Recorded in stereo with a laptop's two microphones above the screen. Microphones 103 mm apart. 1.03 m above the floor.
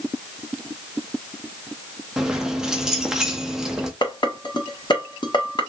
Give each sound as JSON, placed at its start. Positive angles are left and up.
{"t": 2.2, "sound": "keys jangling", "side_deg": -5, "distance_m": 0.6}
{"t": 4.0, "sound": "dishes clattering", "side_deg": 45, "distance_m": 1.3}